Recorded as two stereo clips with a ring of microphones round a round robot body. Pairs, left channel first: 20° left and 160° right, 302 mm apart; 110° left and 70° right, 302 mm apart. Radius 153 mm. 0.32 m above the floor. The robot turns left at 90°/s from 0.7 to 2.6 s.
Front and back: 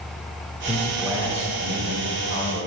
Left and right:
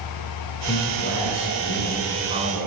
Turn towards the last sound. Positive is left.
turn(degrees=-40)